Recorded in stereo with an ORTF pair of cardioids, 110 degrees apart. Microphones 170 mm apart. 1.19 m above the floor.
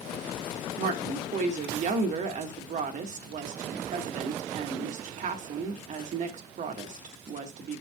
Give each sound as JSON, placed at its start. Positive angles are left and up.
{"t": 0.8, "sound": "a woman speaking", "azimuth_deg": -50, "distance_m": 1.5}